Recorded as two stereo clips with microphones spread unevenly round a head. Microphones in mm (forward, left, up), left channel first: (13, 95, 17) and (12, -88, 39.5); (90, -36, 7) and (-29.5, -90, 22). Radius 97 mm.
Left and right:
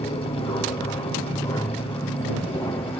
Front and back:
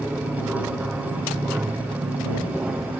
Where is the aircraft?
120° left; by 3.0 s 130° left.